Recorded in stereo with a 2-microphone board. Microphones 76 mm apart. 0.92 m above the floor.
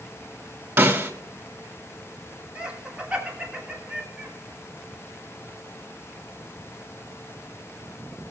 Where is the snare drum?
35° right (ahead or behind), 2.5 m.